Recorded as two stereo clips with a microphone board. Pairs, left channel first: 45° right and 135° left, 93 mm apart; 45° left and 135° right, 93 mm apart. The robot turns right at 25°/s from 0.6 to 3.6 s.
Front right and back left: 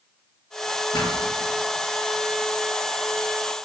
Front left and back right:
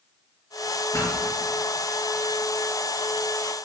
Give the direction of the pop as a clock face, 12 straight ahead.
12 o'clock.